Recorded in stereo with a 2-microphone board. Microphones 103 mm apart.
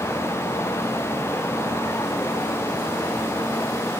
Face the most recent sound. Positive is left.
No sound to turn to.